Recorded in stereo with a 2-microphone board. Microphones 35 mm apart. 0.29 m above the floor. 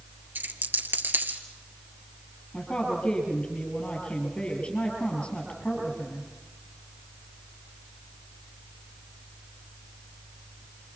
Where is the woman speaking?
30° left (ahead or behind), 6.5 m.